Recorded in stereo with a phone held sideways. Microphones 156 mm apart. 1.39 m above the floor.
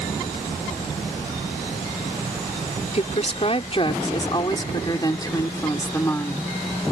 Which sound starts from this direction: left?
A woman speaking, at 2.9 s.